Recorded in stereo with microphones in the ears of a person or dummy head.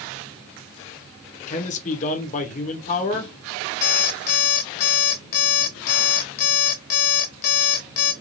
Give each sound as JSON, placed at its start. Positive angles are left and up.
{"t": 1.5, "sound": "a man speaking", "side_deg": 40, "distance_m": 1.1}
{"t": 3.8, "sound": "an alarm clock", "side_deg": 45, "distance_m": 0.7}